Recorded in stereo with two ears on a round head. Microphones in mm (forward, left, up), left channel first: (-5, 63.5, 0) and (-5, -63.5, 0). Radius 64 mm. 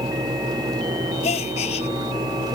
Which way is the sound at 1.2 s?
45° left (ahead or behind).